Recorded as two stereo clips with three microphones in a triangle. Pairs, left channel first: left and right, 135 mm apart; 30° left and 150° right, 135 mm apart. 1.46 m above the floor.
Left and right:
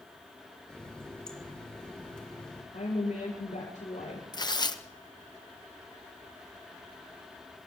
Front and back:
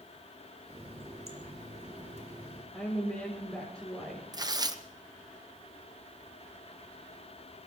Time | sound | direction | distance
0.7 | a running tap | 175° left | 3 m
2.7 | a woman speaking | 120° left | 7 m
4.3 | tearing paper | 150° left | 0.9 m